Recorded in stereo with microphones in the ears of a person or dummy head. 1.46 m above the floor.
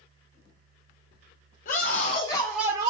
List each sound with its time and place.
1.6 s a scream: 50° left (ahead or behind), 1.8 m; by 2.9 s 30° right (ahead or behind), 1.0 m